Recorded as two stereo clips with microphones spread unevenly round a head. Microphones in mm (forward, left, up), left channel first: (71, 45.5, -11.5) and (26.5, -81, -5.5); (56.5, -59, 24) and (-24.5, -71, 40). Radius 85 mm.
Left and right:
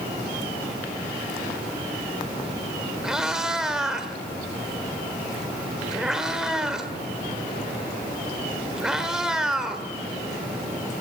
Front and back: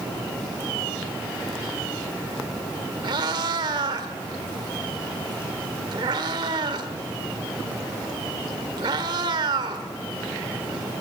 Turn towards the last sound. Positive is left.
turn(degrees=165)